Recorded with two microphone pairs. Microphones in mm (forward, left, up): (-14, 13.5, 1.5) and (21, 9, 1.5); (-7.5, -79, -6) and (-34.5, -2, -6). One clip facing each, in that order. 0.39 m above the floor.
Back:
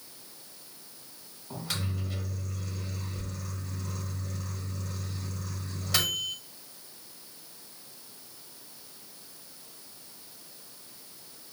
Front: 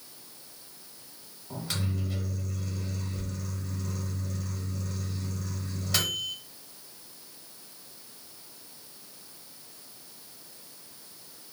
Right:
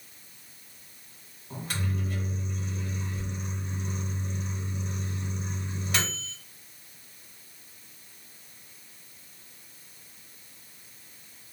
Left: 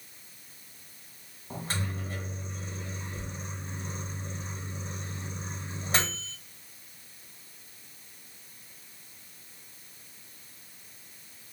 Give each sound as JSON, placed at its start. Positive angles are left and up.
{"t": 1.5, "sound": "a microwave", "azimuth_deg": 85, "distance_m": 1.1}